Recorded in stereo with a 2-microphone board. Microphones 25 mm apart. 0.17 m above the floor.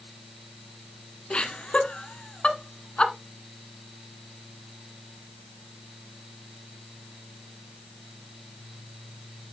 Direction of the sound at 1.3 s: 45° left (ahead or behind).